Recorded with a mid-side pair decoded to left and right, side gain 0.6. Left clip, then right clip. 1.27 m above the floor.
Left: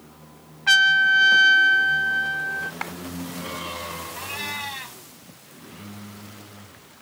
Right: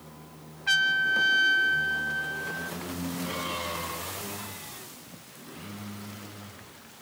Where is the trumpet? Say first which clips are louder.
Left 8 dB; 40° left.